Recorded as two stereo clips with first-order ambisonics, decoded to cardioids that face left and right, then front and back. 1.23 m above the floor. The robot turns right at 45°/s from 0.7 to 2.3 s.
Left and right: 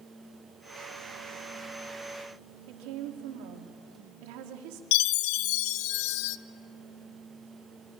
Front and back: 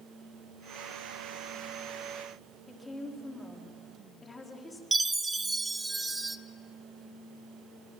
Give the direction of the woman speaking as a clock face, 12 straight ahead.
3 o'clock.